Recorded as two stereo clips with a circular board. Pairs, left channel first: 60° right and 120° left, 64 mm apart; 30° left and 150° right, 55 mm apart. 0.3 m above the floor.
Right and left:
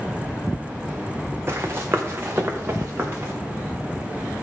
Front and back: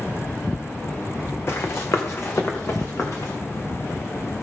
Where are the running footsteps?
70° left, 1.3 m; by 3.3 s 65° left, 2.5 m.